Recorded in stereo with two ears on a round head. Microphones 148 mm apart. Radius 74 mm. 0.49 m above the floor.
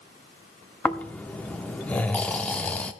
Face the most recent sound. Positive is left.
turn(degrees=10)  # may be behind; listen again after turning